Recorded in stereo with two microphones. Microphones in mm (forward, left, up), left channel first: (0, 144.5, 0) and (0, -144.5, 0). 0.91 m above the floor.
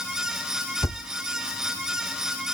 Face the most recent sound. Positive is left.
turn(degrees=10)  # may be behind; listen again after turning